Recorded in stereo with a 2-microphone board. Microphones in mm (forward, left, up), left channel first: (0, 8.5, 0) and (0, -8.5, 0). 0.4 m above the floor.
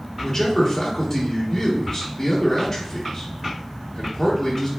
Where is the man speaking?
20° left (ahead or behind), 0.9 m.